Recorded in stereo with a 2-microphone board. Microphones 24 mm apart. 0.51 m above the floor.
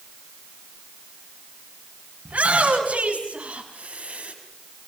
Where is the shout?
75° right (ahead or behind), 6 m.